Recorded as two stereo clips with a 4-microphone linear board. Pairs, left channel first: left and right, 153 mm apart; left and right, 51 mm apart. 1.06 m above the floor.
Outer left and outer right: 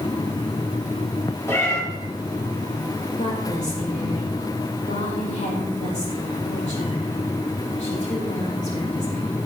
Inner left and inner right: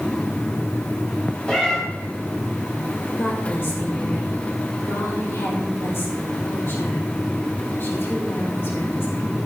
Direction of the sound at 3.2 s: 50° left (ahead or behind).